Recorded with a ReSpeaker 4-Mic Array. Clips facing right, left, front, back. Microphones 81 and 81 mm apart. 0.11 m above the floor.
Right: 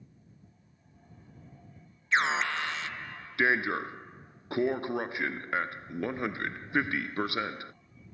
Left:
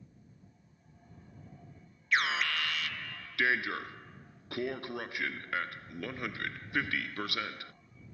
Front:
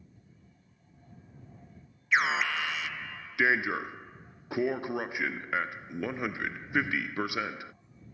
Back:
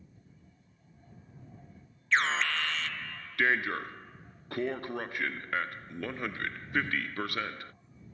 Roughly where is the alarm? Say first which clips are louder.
Right 3 dB, front 1 dB; right.